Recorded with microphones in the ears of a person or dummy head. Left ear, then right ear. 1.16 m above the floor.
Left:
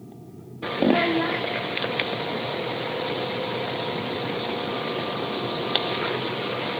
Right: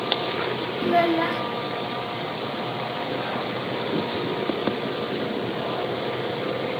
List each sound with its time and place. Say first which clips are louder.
0.8 s a child speaking: right 1 dB; 10° right (ahead or behind), 0.5 m